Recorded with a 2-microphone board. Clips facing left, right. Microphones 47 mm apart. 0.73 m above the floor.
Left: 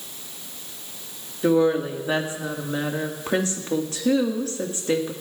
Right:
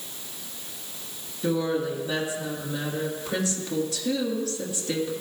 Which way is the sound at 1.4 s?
35° left (ahead or behind).